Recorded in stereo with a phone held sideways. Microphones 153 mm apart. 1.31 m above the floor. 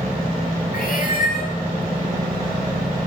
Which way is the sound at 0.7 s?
65° left (ahead or behind).